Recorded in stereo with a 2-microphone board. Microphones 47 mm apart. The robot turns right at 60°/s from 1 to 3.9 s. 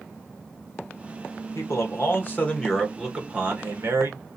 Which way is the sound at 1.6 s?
95° left.